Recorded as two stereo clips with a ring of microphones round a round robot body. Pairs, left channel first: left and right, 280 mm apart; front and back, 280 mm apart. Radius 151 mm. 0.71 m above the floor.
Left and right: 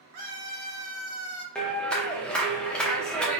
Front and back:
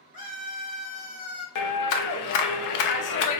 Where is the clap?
5° left, 0.7 m.